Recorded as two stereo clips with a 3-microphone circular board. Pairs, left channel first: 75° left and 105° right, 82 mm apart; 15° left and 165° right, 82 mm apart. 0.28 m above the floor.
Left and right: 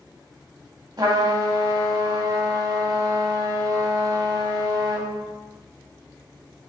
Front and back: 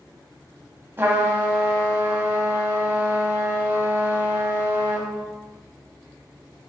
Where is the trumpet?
110° right, 0.6 m.